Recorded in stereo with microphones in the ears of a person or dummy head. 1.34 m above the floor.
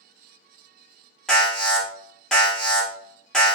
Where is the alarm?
5° left (ahead or behind), 1.4 m.